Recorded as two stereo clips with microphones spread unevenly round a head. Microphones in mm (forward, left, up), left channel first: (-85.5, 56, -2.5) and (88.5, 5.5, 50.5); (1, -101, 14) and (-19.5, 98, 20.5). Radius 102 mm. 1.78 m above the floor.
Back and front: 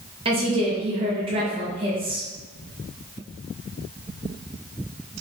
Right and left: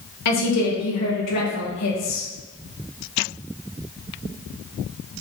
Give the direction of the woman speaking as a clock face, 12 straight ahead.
3 o'clock.